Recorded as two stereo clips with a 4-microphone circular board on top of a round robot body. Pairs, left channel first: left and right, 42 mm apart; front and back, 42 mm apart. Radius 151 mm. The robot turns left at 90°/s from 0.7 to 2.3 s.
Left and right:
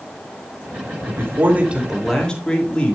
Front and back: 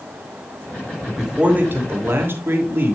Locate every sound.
1.1 s a man speaking: 90° right, 2.5 m; by 3.0 s 160° left, 2.5 m